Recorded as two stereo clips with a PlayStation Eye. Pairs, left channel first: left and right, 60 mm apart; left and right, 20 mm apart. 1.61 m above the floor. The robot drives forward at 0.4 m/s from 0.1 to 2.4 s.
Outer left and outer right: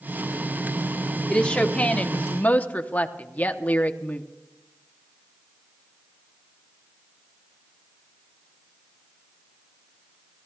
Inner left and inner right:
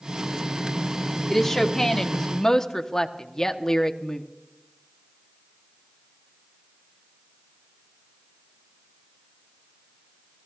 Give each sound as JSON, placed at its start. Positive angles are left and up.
{"t": 1.3, "sound": "a woman speaking", "side_deg": 20, "distance_m": 1.1}